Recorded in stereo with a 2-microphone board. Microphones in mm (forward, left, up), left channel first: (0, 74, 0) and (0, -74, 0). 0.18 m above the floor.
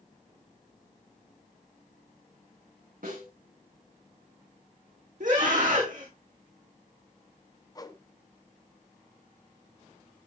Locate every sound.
3.0 s a snare drum: 75° right (ahead or behind), 9 m
5.2 s a scream: 70° right (ahead or behind), 10 m
7.8 s a whoosh: 25° left (ahead or behind), 1.3 m